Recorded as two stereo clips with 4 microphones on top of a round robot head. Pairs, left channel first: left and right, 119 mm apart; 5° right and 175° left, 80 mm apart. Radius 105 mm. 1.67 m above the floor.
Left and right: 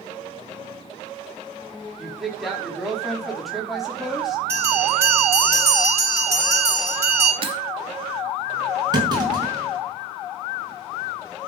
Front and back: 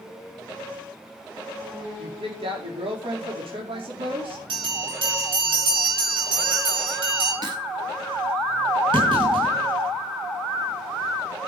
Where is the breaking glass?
125° right, 2.5 m.